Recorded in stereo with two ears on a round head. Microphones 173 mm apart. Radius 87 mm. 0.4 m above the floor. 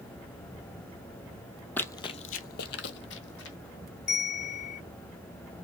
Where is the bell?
55° left (ahead or behind), 1.4 m.